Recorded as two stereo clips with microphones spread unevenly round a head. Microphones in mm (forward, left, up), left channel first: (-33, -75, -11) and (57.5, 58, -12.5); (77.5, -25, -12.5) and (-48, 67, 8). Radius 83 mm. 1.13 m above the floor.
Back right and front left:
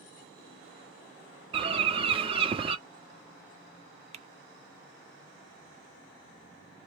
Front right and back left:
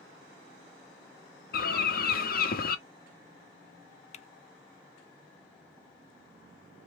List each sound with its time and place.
1.5 s a bird: 5° right, 1.1 m
4.1 s typing on a keyboard: 10° left, 0.5 m